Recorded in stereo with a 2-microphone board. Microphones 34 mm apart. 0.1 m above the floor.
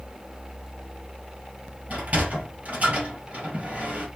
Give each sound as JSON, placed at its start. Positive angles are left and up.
{"t": 1.9, "sound": "a sliding door", "side_deg": -45, "distance_m": 2.5}